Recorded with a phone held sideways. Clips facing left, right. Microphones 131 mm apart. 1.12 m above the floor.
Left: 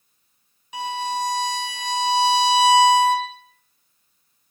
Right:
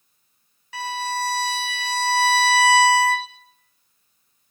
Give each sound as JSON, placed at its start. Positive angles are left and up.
{"t": 0.7, "sound": "a violin", "side_deg": 15, "distance_m": 1.6}